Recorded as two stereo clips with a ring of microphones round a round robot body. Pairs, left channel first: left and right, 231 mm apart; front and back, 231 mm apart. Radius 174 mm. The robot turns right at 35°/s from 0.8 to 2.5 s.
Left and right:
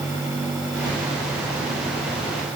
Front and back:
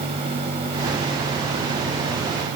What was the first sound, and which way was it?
Only background noise.